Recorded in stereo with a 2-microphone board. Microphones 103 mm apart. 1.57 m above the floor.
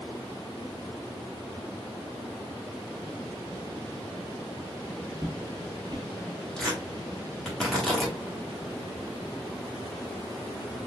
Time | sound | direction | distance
5.2 | footsteps | 35° right (ahead or behind) | 1.9 m
6.6 | tearing paper | 10° left (ahead or behind) | 1.5 m